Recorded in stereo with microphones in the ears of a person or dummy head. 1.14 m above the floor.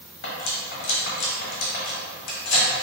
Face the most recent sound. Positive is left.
turn(degrees=65)  # may be behind; listen again after turning